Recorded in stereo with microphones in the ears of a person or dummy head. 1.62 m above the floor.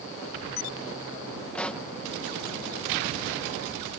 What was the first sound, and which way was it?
A pop, 10° left (ahead or behind).